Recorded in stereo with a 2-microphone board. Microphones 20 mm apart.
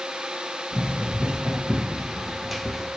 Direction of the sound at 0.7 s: 60° right (ahead or behind).